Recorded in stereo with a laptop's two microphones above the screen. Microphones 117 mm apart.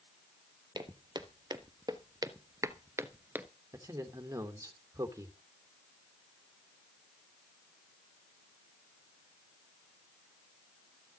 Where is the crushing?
No crushing in this recording.